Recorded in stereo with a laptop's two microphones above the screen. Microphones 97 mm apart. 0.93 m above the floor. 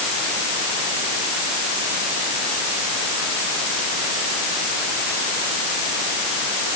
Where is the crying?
I don't hear crying.